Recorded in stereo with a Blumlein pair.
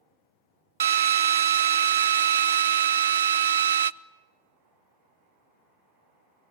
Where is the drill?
65° right, 0.5 m.